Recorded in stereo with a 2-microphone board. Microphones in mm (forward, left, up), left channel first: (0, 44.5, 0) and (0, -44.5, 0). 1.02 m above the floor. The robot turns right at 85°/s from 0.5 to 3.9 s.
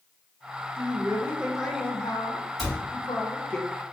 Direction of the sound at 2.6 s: Centre (ahead or behind).